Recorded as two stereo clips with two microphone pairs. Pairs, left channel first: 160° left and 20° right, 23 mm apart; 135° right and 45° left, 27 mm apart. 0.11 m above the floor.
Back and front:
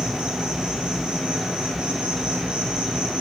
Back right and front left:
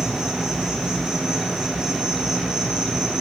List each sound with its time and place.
0.0 s an insect: 5° right, 0.8 m